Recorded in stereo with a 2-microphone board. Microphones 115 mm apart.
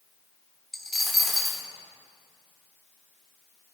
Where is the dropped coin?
Centre (ahead or behind), 1.1 m.